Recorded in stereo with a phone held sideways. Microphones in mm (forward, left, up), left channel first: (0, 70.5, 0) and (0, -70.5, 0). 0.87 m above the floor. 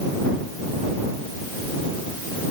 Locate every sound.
Only background noise.